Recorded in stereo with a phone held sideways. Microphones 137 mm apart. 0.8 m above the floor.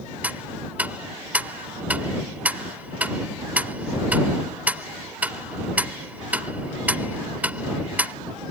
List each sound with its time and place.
0.2 s ticking: 10° right (ahead or behind)